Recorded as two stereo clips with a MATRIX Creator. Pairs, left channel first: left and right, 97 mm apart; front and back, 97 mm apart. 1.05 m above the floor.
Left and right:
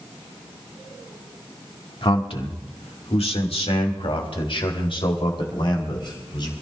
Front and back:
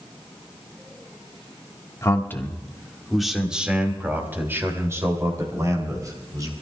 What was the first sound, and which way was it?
A man speaking, 60° left.